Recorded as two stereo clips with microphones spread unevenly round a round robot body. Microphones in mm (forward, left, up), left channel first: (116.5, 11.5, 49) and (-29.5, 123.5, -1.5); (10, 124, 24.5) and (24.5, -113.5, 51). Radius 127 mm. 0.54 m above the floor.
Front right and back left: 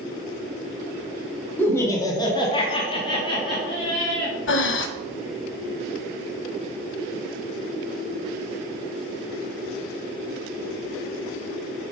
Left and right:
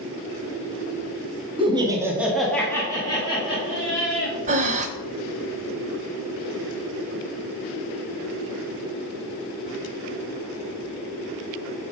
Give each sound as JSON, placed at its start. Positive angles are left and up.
{"t": 1.6, "sound": "laughter", "azimuth_deg": -140, "distance_m": 1.3}
{"t": 4.5, "sound": "breathing", "azimuth_deg": -25, "distance_m": 0.7}